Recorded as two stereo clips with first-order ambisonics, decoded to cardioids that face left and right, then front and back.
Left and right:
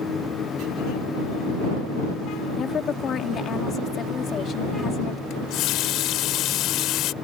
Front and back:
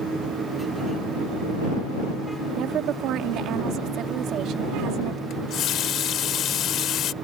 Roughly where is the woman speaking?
Behind left.